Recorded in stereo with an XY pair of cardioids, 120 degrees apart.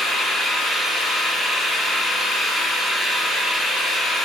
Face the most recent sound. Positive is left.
turn(degrees=30)